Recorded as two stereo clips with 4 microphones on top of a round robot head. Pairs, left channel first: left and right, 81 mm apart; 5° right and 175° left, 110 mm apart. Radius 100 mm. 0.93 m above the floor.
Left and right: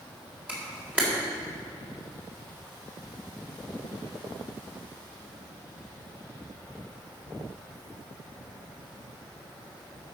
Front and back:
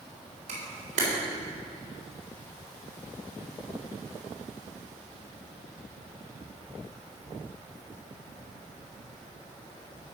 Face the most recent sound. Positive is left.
turn(degrees=-165)